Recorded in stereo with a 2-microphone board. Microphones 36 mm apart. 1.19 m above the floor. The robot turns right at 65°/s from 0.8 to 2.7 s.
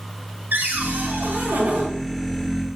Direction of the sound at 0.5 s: 110° right.